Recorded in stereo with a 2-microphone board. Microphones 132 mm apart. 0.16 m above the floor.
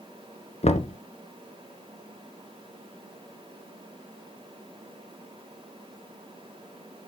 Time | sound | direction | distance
0.6 | knocking | 55° left (ahead or behind) | 1.2 m